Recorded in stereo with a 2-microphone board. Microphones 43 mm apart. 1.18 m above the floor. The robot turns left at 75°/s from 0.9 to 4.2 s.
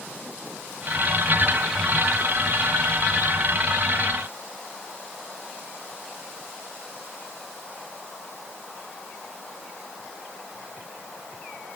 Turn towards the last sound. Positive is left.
No sound to turn to.